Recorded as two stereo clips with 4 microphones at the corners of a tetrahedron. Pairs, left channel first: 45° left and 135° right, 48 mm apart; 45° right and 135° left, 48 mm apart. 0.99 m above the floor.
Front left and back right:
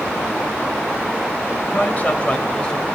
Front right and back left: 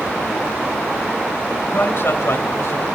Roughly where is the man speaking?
Ahead.